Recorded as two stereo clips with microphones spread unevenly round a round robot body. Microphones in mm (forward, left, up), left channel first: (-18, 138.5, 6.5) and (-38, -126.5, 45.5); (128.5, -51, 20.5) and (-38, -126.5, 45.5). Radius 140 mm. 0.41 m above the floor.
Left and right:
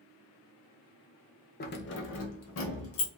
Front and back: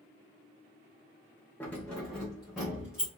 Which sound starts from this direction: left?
Keys jangling, at 1.6 s.